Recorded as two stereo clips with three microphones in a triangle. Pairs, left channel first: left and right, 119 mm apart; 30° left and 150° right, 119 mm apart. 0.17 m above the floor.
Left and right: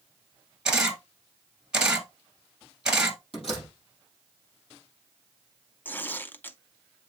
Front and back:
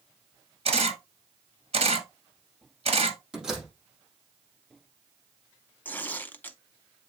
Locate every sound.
0.7 s a camera shutter: 175° right, 1.5 m
3.3 s a door slam: 125° left, 5 m
5.8 s tearing paper: 60° left, 0.5 m